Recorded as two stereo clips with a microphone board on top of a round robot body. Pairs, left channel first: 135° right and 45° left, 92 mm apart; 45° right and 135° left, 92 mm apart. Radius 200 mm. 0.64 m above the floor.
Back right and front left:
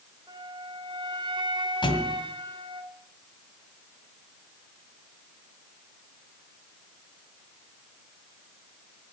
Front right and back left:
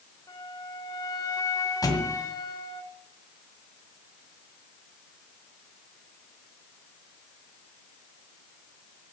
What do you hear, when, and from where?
0.3 s a flute: 5° left, 2 m
1.8 s a thud: 95° right, 1.9 m